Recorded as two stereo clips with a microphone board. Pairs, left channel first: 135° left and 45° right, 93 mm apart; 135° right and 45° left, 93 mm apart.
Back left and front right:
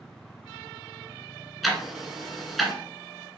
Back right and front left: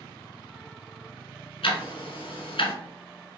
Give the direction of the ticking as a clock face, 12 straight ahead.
4 o'clock.